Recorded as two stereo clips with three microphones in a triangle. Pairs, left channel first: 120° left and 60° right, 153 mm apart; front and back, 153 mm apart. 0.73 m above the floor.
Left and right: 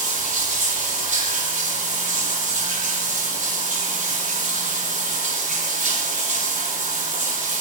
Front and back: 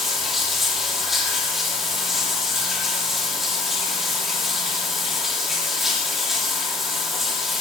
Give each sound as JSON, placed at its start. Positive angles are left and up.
{"t": 0.0, "sound": "running water", "azimuth_deg": -90, "distance_m": 6.0}